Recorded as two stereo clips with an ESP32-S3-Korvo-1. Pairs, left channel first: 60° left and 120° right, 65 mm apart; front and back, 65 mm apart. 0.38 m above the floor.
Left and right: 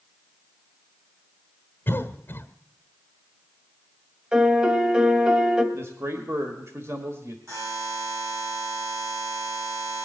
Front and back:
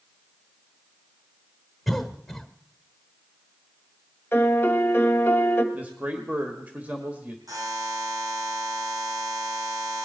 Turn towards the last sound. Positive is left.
turn(degrees=-160)